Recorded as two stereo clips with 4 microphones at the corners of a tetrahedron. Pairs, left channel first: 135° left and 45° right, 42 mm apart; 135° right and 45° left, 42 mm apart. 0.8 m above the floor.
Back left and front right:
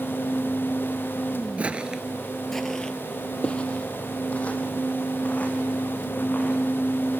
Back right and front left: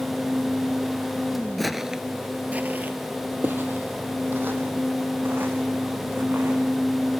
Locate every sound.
1.6 s footsteps: 50° right, 0.8 m; by 6.6 s 80° left, 4 m